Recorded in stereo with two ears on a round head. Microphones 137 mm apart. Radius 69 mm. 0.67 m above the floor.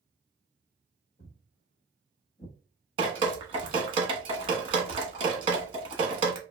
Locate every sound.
1.2 s footsteps: 45° left (ahead or behind), 1.2 m; by 3.8 s 15° right (ahead or behind), 0.6 m
3.0 s dripping: 35° right (ahead or behind), 0.9 m